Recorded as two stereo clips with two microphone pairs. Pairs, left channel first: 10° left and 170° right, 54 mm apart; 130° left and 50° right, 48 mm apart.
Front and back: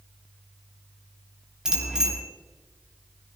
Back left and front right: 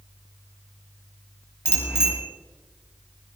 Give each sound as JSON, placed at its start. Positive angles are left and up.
{"t": 1.6, "sound": "a bicycle bell", "azimuth_deg": 115, "distance_m": 4.0}